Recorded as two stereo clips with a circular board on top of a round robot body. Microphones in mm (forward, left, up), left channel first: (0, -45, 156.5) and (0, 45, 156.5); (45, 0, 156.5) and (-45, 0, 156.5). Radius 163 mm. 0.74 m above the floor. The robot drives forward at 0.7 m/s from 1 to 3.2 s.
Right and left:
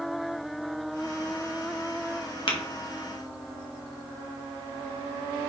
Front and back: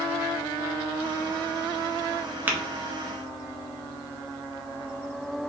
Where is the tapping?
110° right, 1.8 m; by 2.6 s 115° right, 1.8 m.